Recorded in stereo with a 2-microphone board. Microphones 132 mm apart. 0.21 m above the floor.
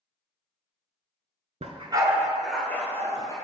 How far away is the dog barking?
About 0.6 m.